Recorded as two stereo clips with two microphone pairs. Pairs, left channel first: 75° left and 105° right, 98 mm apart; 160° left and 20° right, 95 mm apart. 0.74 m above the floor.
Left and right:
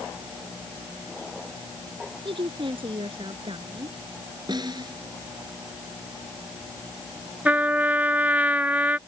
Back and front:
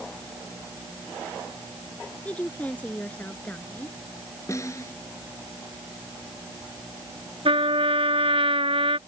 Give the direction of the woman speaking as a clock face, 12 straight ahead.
4 o'clock.